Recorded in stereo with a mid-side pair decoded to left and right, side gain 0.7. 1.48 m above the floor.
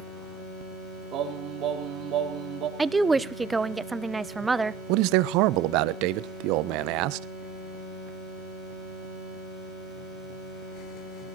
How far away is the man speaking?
About 1.0 m.